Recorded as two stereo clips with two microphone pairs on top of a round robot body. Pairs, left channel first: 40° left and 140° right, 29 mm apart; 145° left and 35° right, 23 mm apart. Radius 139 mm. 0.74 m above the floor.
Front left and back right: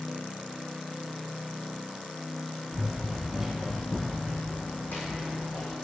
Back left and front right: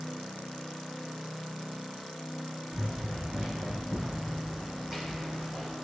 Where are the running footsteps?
85° right, 2 m; by 5.8 s 45° left, 3 m.